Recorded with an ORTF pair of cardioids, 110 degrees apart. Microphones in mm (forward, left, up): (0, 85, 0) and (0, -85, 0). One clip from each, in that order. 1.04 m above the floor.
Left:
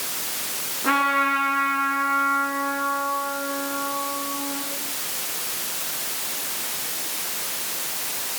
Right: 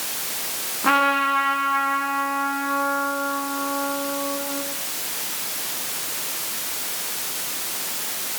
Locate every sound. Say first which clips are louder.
0.8 s a trumpet: right 2 dB; 35° right, 7 m